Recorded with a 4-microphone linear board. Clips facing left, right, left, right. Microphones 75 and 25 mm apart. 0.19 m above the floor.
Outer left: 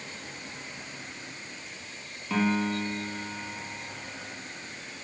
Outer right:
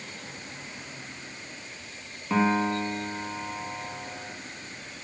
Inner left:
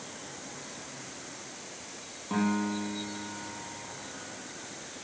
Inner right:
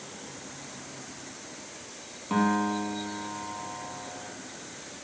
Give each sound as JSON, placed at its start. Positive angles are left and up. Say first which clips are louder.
{"t": 2.3, "sound": "a piano", "louder": "outer right 3 dB, inner right 4 dB", "side_deg": -15, "distance_m": 3.0}